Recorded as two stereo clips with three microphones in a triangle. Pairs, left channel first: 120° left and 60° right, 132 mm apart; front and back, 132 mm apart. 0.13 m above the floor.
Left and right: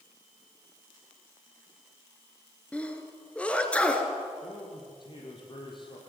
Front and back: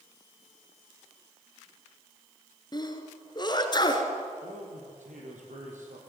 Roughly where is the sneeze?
Ahead left.